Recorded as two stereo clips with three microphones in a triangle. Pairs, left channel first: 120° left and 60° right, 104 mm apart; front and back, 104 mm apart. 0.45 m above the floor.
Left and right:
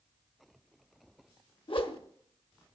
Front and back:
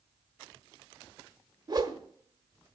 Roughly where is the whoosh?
Behind left.